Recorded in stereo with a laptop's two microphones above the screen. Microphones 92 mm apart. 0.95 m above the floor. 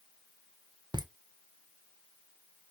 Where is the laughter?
55° right (ahead or behind), 0.7 m.